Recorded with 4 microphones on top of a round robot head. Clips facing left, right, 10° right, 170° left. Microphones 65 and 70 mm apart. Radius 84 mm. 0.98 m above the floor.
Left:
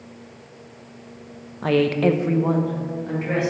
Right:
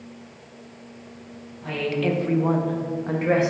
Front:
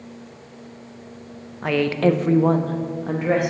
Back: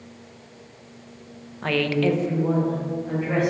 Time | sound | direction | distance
1.6 | a woman speaking | 75° left | 0.7 m